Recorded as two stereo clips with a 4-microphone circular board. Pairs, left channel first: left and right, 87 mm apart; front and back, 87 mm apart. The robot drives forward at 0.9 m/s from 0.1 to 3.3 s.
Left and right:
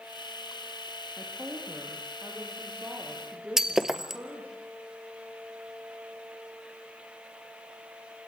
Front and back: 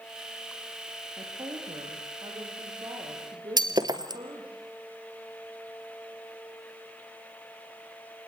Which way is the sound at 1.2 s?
150° right.